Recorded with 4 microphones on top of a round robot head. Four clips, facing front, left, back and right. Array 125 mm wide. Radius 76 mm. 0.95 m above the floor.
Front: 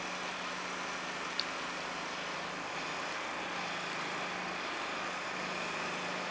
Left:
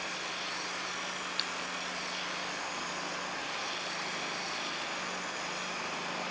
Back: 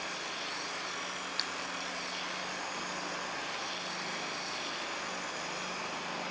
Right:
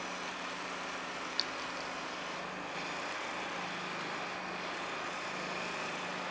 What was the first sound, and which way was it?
A clink, 145° right.